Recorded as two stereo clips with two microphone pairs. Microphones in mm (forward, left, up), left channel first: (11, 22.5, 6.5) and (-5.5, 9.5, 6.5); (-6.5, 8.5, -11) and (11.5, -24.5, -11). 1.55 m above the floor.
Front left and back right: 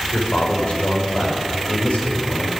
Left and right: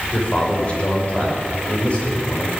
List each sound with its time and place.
0.1 s a man speaking: 55° left, 6.5 m